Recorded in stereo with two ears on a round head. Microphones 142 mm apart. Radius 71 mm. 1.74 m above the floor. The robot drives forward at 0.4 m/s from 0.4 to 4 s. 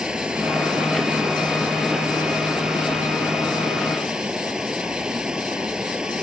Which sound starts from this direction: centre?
Running water, at 0.0 s.